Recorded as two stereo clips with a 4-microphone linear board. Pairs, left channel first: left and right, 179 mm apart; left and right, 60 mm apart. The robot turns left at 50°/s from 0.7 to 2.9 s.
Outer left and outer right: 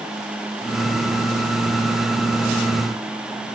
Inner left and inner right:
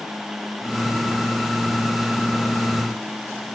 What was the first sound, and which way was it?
Only background noise.